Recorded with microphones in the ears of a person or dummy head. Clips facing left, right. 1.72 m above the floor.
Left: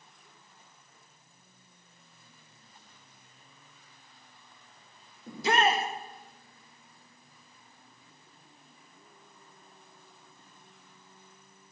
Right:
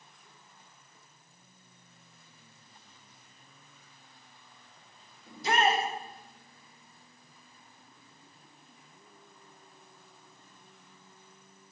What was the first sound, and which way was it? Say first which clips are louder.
A shout: left 1 dB; 65° left (ahead or behind).